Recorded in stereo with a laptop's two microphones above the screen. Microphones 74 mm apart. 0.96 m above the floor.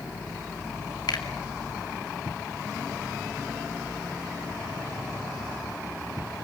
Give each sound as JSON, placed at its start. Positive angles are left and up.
{"t": 1.1, "sound": "a finger snap", "side_deg": 75, "distance_m": 2.5}